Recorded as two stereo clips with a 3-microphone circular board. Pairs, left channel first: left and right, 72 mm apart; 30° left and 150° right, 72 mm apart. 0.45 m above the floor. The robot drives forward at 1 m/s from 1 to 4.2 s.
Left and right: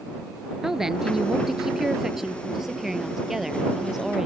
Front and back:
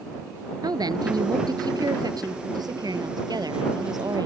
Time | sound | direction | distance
0.6 | a woman speaking | 175° right | ?